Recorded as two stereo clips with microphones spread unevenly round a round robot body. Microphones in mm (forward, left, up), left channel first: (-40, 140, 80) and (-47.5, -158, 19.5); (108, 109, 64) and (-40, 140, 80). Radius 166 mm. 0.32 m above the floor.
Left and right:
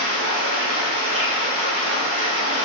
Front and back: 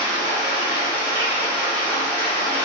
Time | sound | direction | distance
0.0 | running water | 85° right | 1.3 m